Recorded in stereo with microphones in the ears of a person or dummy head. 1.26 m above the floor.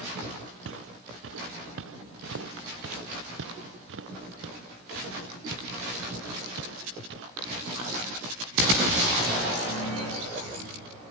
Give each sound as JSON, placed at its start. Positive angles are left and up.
{"t": 0.7, "sound": "footsteps", "side_deg": -75}